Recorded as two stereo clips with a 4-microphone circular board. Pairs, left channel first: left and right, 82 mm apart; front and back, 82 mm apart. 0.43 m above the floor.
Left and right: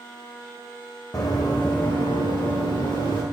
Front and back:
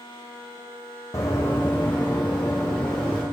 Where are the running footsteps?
50° left, 1.3 m; by 3.2 s 80° left, 2.5 m.